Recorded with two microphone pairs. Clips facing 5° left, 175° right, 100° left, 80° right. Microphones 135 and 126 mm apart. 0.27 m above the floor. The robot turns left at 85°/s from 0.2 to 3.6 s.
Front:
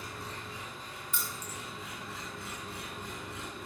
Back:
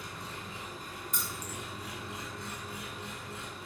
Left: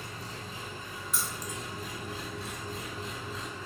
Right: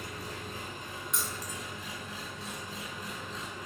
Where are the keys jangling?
175° right, 1.1 m; by 1.6 s 145° left, 1.1 m.